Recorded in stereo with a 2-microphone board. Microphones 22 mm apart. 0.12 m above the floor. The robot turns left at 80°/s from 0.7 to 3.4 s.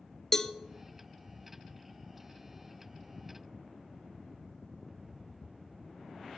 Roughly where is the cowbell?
Centre.